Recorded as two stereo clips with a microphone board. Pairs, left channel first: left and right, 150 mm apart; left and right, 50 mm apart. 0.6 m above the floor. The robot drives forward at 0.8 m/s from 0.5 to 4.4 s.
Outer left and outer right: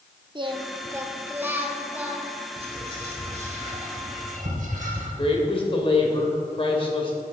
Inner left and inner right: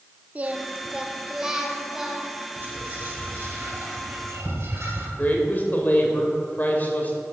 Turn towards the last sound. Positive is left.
turn(degrees=40)  # may be behind; listen again after turning